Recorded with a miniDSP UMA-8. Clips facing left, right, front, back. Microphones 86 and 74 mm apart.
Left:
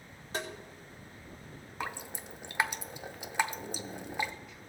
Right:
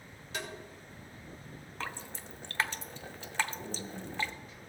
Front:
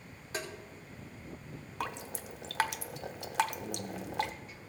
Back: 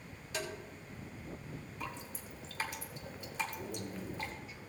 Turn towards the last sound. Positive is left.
turn(degrees=-40)